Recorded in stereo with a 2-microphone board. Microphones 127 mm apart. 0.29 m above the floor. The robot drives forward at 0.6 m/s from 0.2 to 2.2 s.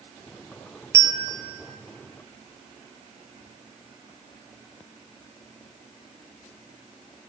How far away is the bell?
About 0.9 m.